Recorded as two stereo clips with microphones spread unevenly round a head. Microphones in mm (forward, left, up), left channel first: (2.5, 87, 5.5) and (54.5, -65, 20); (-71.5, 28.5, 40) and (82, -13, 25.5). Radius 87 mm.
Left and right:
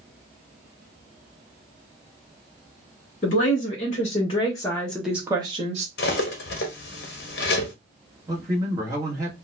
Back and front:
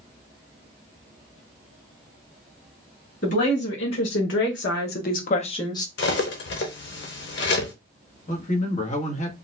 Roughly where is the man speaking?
Behind right.